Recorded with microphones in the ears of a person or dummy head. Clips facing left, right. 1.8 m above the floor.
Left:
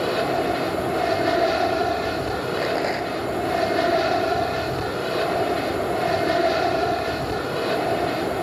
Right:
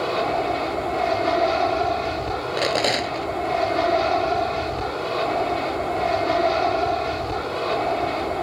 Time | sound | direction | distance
0.0 | an aircraft | 15° left (ahead or behind) | ?
2.6 | a rattle | 50° right (ahead or behind) | ?